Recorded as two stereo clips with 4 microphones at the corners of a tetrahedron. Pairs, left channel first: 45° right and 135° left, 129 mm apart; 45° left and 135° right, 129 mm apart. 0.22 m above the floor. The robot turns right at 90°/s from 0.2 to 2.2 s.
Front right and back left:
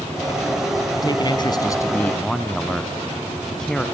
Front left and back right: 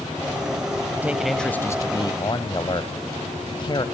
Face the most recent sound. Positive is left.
turn(degrees=35)